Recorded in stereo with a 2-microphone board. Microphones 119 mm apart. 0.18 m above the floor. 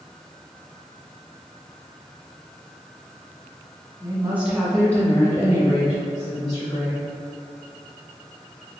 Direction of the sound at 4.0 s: 30° right (ahead or behind).